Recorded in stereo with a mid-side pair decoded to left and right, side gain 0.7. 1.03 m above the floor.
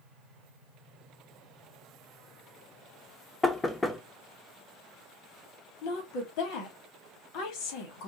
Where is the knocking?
15° left, 0.8 m.